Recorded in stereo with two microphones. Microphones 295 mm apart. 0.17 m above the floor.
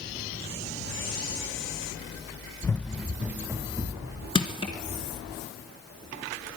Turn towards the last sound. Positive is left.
turn(degrees=15)  # may be behind; listen again after turning